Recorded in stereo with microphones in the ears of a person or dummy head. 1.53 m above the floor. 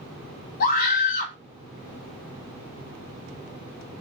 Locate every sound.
0.6 s a scream: 50° left (ahead or behind), 1.7 m